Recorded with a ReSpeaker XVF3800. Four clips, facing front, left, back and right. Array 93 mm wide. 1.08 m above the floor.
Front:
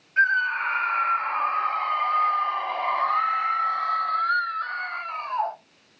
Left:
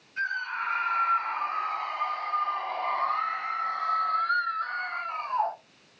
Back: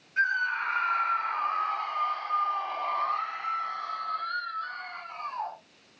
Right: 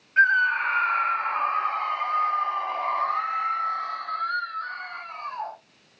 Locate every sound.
0.2 s a scream: 70° right, 1.6 m; by 5.5 s 30° left, 2 m